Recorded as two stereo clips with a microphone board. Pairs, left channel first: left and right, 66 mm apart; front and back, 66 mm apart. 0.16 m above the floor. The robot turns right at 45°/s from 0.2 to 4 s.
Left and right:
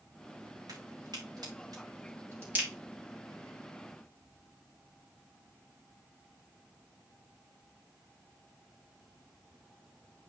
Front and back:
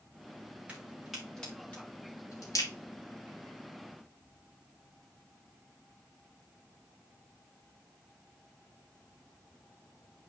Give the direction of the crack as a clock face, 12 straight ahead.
4 o'clock.